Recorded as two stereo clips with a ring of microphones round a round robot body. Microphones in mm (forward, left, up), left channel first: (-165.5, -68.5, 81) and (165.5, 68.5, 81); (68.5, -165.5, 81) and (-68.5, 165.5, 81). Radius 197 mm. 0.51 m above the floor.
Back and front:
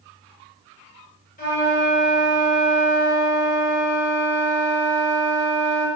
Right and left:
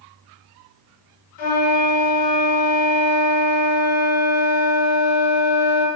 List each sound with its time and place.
1.4 s a flute: 90° right, 1.1 m